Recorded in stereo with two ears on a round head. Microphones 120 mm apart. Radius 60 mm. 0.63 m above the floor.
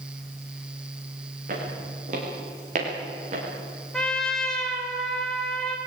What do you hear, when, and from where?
1.5 s footsteps: 60° right (ahead or behind), 9.5 m; by 3.5 s 50° right (ahead or behind), 8 m
3.9 s a trumpet: 5° left (ahead or behind), 2.5 m